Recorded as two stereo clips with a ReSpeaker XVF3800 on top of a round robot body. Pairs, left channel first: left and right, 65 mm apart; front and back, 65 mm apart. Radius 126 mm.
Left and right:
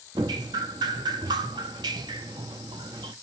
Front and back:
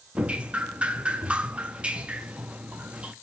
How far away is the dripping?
About 0.6 m.